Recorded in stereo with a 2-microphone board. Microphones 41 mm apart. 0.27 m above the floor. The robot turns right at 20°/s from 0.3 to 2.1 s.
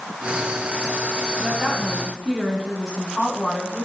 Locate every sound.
1.4 s a woman speaking: centre (ahead or behind), 8 m; by 3.9 s 15° right (ahead or behind), 8 m